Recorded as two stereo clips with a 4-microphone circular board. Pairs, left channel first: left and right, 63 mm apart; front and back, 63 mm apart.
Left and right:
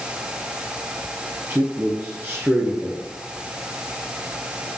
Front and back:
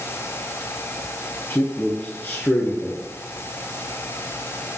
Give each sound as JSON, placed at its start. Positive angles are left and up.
{"t": 1.5, "sound": "a man speaking", "azimuth_deg": -45, "distance_m": 2.0}